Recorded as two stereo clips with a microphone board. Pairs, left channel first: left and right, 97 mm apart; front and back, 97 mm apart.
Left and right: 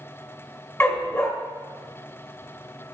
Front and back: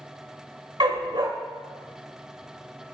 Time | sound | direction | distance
0.8 | a dog barking | 150° left | 0.6 m